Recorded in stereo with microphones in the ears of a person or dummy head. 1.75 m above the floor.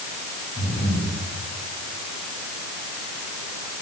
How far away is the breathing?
About 7.5 m.